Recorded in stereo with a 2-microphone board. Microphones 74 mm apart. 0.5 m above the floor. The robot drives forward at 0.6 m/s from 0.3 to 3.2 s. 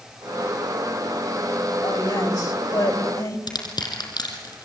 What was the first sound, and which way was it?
A woman speaking, 65° left (ahead or behind).